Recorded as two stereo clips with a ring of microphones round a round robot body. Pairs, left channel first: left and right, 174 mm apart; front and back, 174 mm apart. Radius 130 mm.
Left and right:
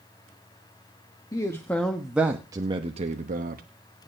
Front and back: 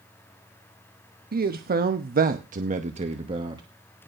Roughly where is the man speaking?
Behind.